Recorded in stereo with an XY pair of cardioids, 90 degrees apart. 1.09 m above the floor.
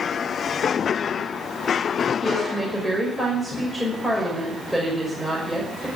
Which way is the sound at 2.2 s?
10° right.